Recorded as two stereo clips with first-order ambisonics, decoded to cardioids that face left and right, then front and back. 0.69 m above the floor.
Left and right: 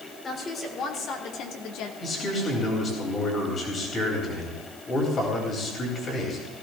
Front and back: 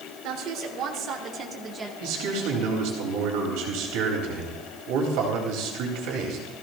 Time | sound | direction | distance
0.2 | a woman speaking | 155° left | 2.5 m
2.0 | a man speaking | 155° left | 3.5 m